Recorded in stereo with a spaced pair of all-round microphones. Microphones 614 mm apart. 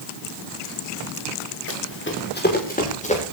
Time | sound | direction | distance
1.7 | running footsteps | 20° left (ahead or behind) | 6.5 m